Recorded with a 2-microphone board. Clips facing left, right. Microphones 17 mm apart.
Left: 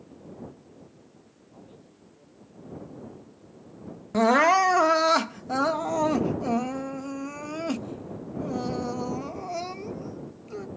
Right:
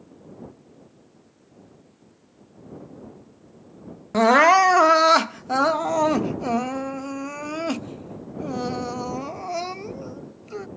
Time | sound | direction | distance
1.5 | a man speaking | 85° left | ?
4.1 | crying | 20° right (ahead or behind) | ?